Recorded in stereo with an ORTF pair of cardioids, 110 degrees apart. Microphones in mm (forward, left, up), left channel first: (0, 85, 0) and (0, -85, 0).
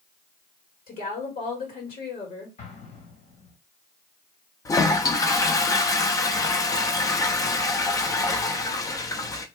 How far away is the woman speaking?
About 1.7 m.